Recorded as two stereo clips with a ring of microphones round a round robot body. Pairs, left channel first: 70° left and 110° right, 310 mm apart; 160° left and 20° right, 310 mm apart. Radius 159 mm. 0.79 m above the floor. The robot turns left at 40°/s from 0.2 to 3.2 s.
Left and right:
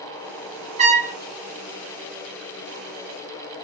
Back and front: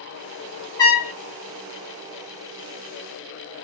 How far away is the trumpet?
About 0.6 m.